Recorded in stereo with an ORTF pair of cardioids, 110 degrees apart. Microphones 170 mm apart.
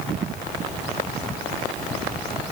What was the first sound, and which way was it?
Only background noise.